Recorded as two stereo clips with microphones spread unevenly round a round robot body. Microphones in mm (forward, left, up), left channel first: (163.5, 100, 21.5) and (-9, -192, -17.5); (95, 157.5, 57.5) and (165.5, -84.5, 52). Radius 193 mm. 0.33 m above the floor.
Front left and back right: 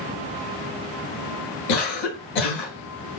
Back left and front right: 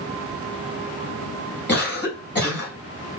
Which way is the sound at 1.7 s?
60° left.